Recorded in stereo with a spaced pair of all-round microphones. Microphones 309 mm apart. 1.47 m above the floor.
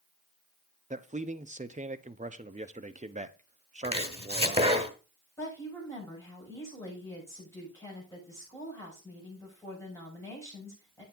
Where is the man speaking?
25° right (ahead or behind), 0.7 m.